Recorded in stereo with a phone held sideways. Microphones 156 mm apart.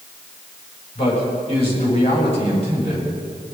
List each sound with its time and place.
0.9 s a man speaking: 40° left (ahead or behind), 6.5 m